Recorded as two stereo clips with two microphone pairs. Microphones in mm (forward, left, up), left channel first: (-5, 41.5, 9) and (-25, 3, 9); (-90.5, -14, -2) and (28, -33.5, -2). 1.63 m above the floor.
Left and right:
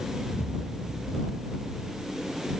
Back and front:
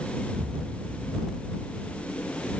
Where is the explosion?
20° right.